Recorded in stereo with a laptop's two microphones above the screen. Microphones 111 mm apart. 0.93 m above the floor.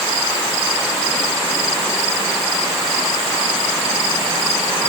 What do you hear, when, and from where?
Only background noise.